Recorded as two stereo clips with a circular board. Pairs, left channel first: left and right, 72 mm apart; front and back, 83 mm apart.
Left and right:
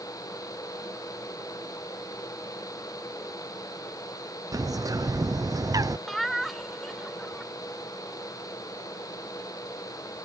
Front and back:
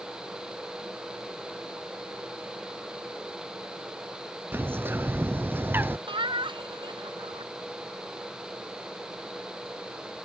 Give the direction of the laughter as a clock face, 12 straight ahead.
6 o'clock.